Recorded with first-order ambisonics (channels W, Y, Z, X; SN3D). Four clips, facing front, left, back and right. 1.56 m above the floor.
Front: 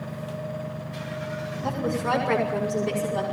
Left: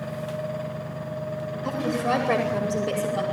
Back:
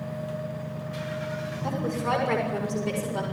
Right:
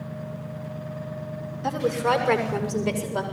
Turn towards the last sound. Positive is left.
turn(degrees=-105)